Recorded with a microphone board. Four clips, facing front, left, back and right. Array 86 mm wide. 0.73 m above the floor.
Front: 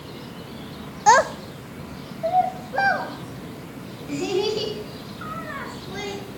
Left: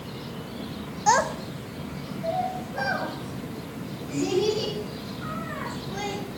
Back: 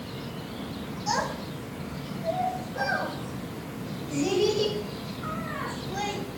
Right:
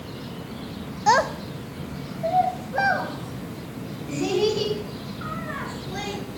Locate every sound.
1.1 s a child speaking: 5° right, 0.7 m; by 6.2 s 35° right, 8 m